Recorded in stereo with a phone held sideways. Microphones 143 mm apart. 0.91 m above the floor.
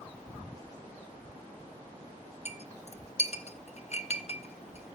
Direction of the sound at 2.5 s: 50° left (ahead or behind).